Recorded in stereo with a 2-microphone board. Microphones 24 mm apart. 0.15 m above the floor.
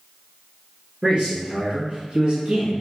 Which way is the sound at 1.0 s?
30° right (ahead or behind).